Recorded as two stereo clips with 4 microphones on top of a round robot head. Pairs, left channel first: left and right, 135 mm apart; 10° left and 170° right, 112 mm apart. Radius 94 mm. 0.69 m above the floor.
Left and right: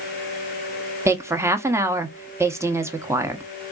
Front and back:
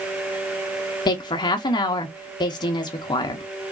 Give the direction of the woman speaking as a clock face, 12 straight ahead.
1 o'clock.